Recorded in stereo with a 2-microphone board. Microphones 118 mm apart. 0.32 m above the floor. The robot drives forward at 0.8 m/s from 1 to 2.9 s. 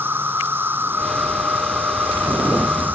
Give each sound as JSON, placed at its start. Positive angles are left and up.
{"t": 0.0, "sound": "an insect", "side_deg": -15}